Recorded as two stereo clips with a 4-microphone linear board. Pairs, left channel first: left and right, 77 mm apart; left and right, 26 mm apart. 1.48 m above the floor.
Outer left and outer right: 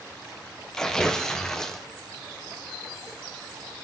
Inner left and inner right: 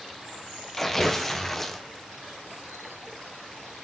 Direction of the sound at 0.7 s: 5° left (ahead or behind).